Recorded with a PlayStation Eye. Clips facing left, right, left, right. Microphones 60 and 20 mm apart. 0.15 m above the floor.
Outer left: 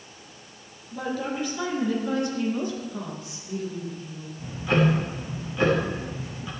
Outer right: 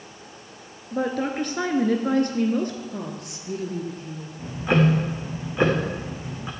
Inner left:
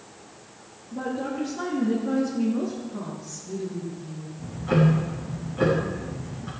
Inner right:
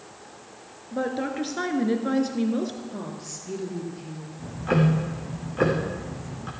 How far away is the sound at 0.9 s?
About 2 m.